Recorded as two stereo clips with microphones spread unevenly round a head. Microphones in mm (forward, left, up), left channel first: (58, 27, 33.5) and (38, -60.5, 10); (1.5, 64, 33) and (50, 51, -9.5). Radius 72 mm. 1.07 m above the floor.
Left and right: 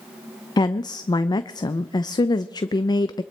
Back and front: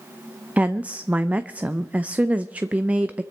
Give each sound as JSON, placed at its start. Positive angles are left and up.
{"t": 0.6, "sound": "a woman speaking", "azimuth_deg": 25, "distance_m": 0.5}